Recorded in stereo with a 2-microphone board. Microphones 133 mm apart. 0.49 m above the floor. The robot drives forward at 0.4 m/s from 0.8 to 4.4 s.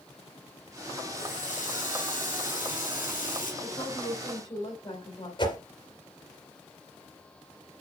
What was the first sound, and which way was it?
A running tap, 70° left (ahead or behind).